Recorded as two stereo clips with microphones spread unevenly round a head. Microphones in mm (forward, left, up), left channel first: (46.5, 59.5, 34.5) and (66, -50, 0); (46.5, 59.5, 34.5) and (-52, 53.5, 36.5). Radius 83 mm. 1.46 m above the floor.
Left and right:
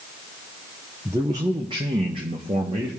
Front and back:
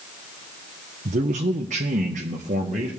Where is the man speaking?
160° right, 0.6 m; by 2.9 s 140° right, 1.4 m.